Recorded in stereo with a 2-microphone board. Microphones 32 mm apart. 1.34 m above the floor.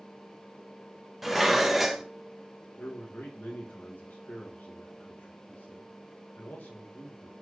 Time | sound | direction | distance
1.2 | dishes clattering | 10° right (ahead or behind) | 0.6 m
2.8 | a man speaking | 70° left (ahead or behind) | 1.1 m